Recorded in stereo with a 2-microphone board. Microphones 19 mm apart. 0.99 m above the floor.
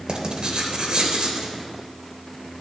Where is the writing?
50° right (ahead or behind), 1.1 m.